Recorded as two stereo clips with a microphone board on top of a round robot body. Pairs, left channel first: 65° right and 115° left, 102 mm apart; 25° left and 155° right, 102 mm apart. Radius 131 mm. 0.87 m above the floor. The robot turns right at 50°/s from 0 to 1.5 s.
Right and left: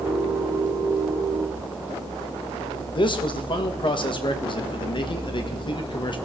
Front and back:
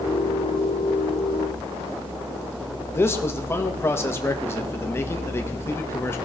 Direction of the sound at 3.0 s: 40° right.